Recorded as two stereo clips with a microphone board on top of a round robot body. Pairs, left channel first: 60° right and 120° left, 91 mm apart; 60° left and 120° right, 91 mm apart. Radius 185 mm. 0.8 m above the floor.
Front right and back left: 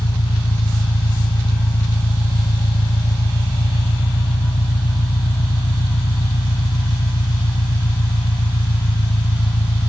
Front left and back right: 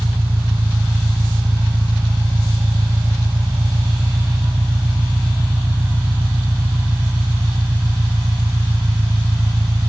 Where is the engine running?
50° right.